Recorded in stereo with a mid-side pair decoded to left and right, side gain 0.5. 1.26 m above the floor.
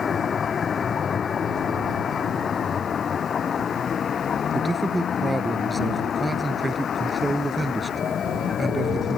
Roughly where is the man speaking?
Ahead.